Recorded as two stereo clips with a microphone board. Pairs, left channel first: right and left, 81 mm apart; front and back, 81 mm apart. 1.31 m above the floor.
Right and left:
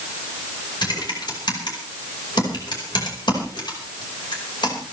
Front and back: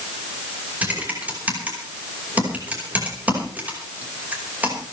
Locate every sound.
0.8 s typing on a keyboard: 110° right, 5 m